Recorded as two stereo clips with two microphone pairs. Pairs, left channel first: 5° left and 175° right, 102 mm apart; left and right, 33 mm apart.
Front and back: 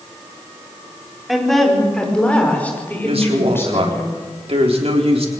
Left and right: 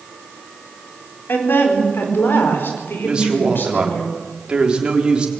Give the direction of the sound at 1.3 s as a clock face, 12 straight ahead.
9 o'clock.